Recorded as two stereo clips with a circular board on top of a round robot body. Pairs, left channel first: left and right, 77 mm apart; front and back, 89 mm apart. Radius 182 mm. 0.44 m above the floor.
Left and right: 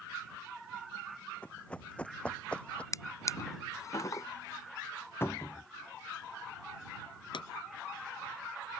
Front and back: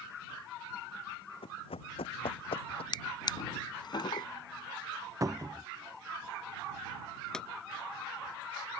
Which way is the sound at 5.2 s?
140° left.